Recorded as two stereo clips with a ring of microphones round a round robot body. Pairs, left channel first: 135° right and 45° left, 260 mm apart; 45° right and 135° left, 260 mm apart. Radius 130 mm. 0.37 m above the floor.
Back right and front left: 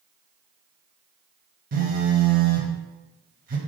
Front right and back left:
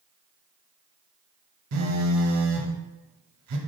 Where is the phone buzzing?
105° left, 0.6 m.